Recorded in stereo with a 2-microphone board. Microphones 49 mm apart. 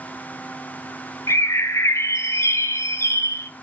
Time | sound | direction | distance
1.3 | a bird | 65° left (ahead or behind) | 0.6 m